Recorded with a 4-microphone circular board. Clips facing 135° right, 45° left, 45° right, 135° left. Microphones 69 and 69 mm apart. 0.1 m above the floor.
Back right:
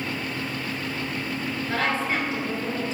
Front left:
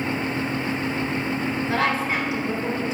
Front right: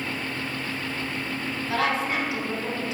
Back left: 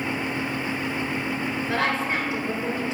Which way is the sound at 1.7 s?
120° left.